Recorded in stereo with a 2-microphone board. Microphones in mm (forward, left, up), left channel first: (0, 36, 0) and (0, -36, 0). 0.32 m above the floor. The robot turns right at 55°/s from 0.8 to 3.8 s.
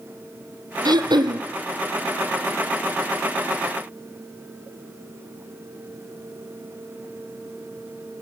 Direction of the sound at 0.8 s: 110° right.